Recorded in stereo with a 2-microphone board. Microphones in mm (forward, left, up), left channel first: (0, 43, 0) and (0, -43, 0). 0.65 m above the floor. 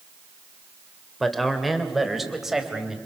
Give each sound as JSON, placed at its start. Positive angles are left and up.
{"t": 1.2, "sound": "a man speaking", "side_deg": 0, "distance_m": 2.5}